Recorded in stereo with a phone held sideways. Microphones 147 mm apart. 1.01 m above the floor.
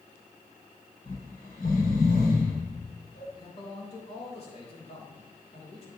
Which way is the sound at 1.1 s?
75° left (ahead or behind).